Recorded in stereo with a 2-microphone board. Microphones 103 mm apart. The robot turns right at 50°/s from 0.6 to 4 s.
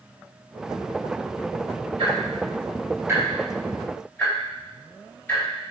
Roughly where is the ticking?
Right.